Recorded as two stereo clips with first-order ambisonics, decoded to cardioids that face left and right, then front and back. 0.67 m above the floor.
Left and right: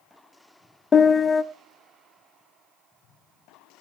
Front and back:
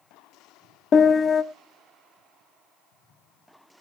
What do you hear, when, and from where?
0.9 s a piano: 25° left, 0.6 m